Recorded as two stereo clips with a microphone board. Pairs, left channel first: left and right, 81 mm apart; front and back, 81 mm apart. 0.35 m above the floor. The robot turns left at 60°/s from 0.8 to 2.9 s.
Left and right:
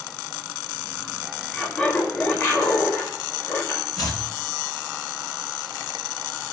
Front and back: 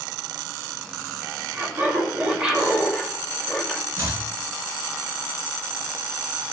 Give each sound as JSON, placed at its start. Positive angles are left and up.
{"t": 1.5, "sound": "laughter", "azimuth_deg": 170, "distance_m": 1.2}
{"t": 4.0, "sound": "chopping", "azimuth_deg": 125, "distance_m": 1.8}